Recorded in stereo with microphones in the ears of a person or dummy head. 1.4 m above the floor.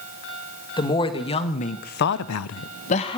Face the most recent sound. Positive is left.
turn(degrees=25)  # may be behind; listen again after turning